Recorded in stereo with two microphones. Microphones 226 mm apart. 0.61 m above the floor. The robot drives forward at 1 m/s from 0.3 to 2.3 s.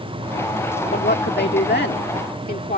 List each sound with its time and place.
0.9 s a woman speaking: 45° left (ahead or behind); by 2.8 s 40° left (ahead or behind)